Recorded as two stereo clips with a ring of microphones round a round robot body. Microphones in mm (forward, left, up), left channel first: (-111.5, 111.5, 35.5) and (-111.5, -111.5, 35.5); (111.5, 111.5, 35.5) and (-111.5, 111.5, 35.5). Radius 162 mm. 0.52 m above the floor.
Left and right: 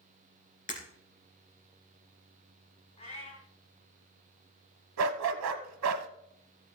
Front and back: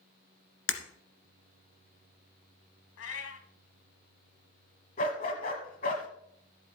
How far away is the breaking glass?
About 2.5 m.